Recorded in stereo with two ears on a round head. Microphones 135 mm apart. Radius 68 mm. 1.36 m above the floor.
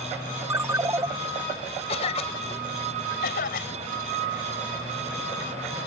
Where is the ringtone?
20° right (ahead or behind).